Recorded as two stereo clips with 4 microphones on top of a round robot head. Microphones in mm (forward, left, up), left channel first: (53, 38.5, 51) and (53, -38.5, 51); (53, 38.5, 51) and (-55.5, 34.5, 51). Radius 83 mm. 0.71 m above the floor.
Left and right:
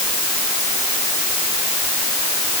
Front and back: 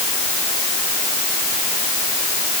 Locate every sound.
Only background noise.